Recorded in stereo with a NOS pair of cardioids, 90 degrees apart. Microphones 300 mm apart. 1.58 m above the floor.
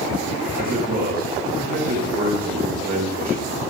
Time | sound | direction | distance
0.6 | a man speaking | 30° right | 2.5 m